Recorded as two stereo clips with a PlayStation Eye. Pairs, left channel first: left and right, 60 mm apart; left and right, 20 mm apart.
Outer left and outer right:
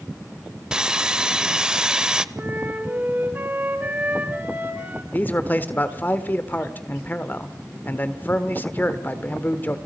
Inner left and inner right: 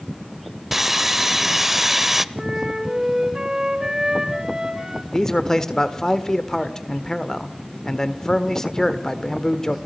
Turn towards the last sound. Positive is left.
turn(degrees=30)  # may be behind; listen again after turning